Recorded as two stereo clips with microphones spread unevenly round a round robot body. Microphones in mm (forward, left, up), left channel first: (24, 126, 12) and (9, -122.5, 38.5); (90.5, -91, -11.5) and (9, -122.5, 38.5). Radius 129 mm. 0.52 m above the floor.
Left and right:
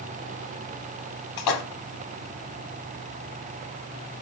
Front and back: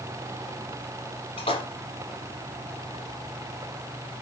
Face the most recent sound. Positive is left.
turn(degrees=85)